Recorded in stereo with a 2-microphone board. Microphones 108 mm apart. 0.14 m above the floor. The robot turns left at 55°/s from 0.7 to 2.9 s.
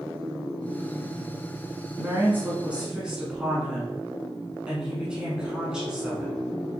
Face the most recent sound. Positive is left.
turn(degrees=-10)  # may be behind; listen again after turning